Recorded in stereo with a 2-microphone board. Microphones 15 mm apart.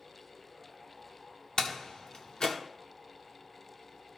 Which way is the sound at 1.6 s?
65° left (ahead or behind).